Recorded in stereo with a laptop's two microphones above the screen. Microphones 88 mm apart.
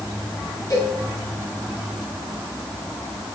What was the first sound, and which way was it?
A cowbell, 45° left (ahead or behind).